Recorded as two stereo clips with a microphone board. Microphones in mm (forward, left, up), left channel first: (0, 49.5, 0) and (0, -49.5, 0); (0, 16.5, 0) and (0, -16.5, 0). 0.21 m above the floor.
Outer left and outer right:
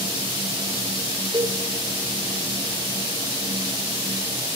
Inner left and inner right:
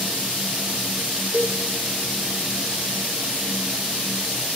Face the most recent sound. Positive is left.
turn(degrees=-50)  # may be behind; listen again after turning